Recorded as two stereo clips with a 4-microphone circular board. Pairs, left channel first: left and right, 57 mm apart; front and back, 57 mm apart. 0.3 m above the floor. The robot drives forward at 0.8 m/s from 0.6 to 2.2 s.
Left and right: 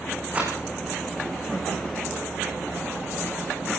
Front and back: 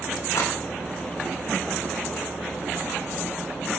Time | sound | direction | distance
0.3 | a rattle | 25° right | 9 m